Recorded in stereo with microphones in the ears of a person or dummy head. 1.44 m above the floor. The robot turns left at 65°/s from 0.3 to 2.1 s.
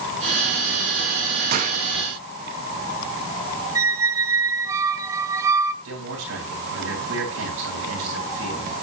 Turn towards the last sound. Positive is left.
turn(degrees=-80)